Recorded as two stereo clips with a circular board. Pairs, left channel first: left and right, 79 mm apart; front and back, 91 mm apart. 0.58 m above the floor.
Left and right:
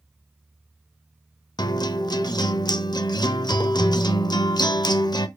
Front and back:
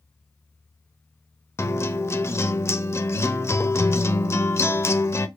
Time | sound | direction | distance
1.6 | a guitar | 60° left | 0.7 m